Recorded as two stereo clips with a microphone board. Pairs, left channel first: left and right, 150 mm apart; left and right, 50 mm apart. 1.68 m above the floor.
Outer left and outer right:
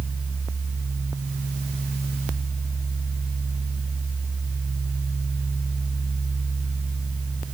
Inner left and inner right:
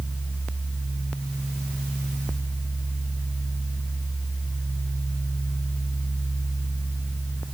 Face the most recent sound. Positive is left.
No sound to turn to.